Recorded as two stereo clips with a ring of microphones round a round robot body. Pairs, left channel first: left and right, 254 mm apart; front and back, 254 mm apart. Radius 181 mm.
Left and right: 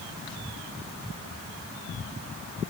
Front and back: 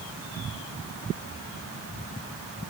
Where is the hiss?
No hiss in this recording.